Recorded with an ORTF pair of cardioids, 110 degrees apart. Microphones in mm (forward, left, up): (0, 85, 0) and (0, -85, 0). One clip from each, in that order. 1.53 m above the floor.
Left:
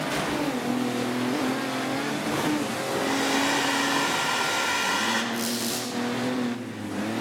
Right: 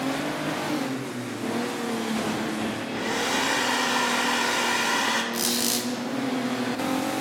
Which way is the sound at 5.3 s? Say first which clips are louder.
Right 3 dB; 40° right.